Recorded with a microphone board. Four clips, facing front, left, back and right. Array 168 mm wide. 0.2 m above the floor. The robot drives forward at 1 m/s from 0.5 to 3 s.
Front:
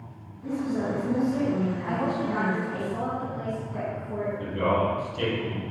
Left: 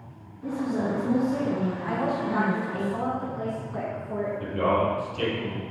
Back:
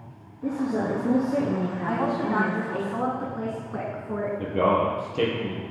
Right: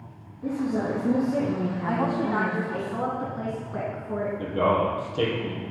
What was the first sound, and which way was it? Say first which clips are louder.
A woman speaking: right 1 dB, back 2 dB; 155° right.